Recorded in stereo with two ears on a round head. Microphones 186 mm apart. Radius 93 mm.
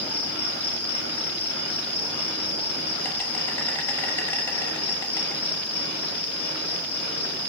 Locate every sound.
0.0 s an insect: 10° left (ahead or behind), 1.2 m